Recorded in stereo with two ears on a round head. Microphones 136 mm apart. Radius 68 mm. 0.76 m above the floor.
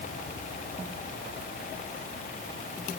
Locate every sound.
Only background noise.